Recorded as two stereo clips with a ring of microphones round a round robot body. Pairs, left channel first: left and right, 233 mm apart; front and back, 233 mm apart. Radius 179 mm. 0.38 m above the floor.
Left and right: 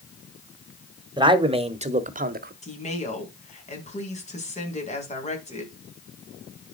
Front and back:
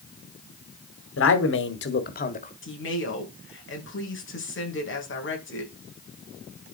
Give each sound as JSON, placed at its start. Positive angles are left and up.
{"t": 1.2, "sound": "a man speaking", "azimuth_deg": -20, "distance_m": 2.0}
{"t": 2.6, "sound": "a woman speaking", "azimuth_deg": 30, "distance_m": 4.5}